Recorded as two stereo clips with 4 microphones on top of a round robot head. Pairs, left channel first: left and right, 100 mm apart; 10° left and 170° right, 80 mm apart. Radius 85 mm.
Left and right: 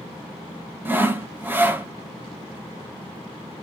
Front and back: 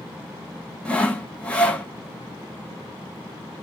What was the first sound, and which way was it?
Sawing, 45° right.